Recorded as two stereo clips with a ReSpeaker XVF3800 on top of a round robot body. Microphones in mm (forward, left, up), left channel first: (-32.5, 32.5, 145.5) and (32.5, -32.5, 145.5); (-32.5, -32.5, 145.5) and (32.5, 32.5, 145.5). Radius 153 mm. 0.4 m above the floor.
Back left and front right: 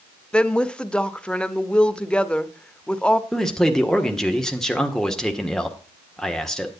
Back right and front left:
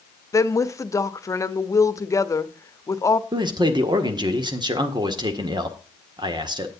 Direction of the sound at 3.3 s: 50° left.